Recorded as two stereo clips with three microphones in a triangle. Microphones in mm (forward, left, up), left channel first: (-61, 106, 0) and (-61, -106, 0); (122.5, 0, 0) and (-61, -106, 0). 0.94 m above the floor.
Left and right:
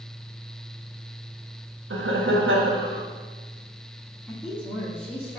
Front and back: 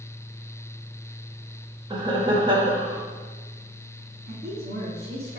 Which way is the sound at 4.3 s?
175° left.